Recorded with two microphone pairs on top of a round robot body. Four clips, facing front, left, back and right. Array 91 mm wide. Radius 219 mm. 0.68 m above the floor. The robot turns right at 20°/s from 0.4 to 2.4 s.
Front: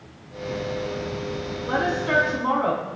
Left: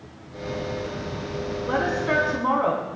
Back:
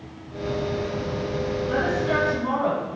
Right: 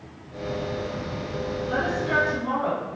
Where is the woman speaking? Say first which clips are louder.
Left 3 dB, front 2 dB; 55° left, 5 m; by 2.9 s 70° left, 5 m.